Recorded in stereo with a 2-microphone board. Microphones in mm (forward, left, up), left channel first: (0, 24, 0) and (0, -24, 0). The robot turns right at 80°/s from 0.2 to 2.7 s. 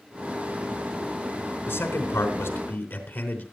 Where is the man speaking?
45° left, 3.5 m; by 3.4 s 130° left, 3.5 m.